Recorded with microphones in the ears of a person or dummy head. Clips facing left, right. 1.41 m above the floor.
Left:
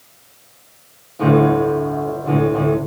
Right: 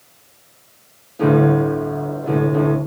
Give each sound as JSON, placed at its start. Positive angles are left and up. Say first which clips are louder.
{"t": 1.2, "sound": "a piano", "louder": "left 1 dB", "side_deg": -15, "distance_m": 0.5}